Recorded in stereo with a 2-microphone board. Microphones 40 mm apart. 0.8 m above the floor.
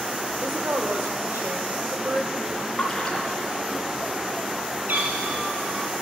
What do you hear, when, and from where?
0.4 s a woman speaking: 80° right, 1.9 m; by 3.8 s 60° right (ahead or behind), 5 m
2.8 s a splash: 15° left (ahead or behind), 3 m
4.9 s a cat meowing: 50° right (ahead or behind), 3.5 m